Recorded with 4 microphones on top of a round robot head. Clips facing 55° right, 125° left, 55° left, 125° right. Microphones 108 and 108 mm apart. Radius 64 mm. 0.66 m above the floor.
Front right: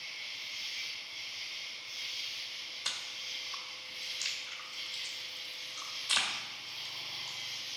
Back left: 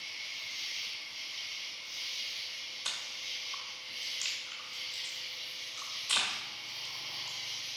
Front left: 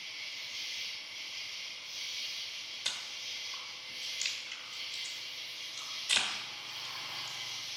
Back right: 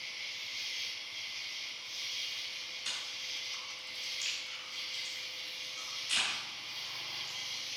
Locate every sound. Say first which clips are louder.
0.0 s an insect: back left 1 dB, back right 1 dB; 140° left, 3 m
2.9 s chewing: even, front left 2 dB; 45° left, 1.7 m